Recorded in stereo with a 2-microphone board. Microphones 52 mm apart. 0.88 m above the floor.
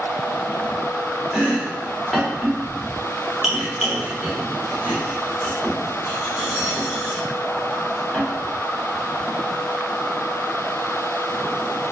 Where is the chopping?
10° right (ahead or behind), 0.7 m.